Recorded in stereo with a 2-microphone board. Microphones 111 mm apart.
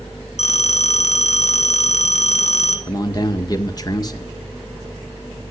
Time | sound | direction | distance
0.4 | a phone ringing | 70° left (ahead or behind) | 3 m
2.9 | a man speaking | 35° left (ahead or behind) | 1.8 m